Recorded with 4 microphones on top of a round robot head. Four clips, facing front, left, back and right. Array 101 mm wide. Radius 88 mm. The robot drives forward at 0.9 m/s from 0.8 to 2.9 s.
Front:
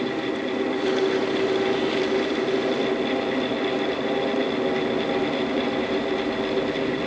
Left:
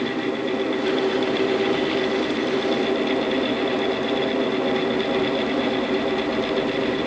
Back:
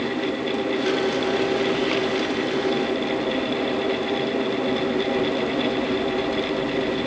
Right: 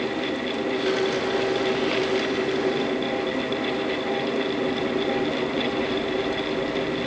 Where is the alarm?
I don't hear an alarm.